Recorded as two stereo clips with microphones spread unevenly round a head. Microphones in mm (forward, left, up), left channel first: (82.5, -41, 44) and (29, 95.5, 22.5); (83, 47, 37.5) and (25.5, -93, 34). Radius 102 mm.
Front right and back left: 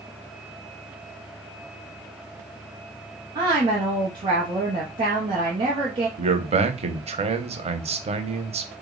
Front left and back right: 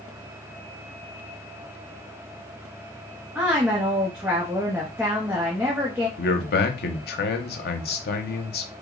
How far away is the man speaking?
About 0.7 m.